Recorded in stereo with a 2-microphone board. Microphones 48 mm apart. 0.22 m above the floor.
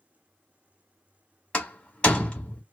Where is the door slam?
20° left (ahead or behind), 1.0 m.